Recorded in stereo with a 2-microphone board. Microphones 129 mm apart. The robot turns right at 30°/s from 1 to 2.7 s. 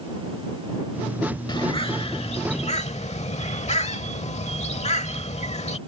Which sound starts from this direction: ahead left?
A bird, at 1.5 s.